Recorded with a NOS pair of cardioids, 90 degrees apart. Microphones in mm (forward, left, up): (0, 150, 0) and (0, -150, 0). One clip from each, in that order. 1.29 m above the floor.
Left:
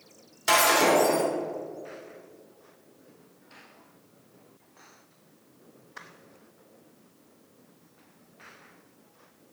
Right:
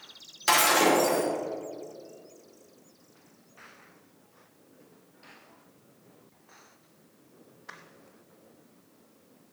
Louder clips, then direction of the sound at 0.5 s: Left 1 dB; 30° right.